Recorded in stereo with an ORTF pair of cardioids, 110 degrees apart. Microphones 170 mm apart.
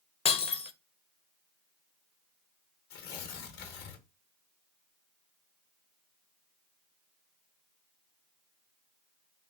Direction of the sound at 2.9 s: 70° left.